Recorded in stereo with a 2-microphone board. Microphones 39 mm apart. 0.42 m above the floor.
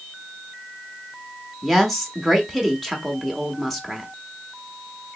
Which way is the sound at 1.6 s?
5° left (ahead or behind).